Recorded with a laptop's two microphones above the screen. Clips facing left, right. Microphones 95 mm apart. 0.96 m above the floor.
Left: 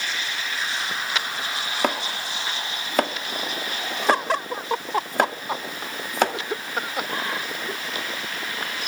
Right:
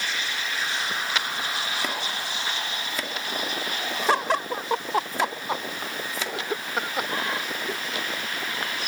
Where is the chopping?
55° left (ahead or behind), 2 m.